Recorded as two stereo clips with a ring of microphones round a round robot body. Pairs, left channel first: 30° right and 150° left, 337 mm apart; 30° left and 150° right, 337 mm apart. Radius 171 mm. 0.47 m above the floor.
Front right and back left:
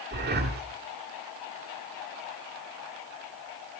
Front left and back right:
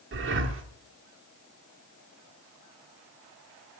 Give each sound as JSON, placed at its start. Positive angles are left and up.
{"t": 0.1, "sound": "breathing", "azimuth_deg": -170, "distance_m": 1.5}